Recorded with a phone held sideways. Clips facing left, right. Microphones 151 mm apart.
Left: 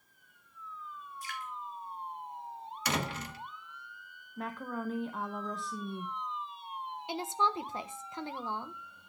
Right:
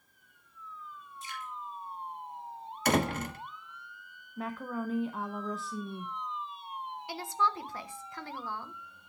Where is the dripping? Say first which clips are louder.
Even; 25° right (ahead or behind), 4.5 m.